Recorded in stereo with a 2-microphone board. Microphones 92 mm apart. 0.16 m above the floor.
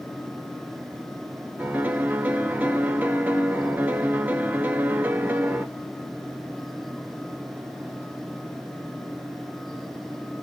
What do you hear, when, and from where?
1.6 s a piano: 20° right (ahead or behind), 0.6 m